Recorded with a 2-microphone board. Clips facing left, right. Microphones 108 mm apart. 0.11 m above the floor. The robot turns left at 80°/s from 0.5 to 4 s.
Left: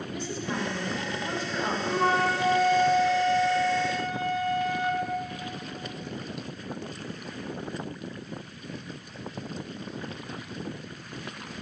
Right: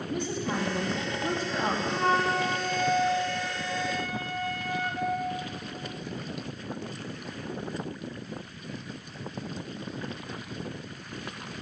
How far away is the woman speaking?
About 4.5 m.